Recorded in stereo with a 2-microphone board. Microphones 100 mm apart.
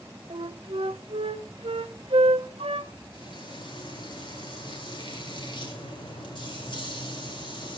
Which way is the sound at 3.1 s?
50° left (ahead or behind).